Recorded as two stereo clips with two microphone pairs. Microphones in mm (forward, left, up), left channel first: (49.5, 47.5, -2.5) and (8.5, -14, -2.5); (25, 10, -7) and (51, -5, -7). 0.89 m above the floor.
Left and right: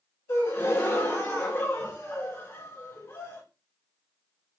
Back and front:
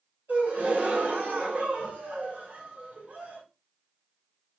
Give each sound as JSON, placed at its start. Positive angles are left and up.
{"t": 0.3, "sound": "a gasp", "azimuth_deg": 5, "distance_m": 1.9}